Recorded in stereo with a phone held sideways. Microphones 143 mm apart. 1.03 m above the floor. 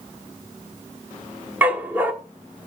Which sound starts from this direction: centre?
A dog barking, at 1.6 s.